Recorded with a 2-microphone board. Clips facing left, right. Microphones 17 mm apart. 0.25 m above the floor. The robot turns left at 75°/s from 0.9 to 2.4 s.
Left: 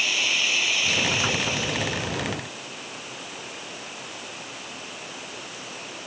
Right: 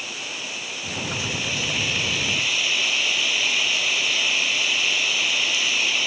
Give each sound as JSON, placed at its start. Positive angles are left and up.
{"t": 0.0, "sound": "running water", "azimuth_deg": 40}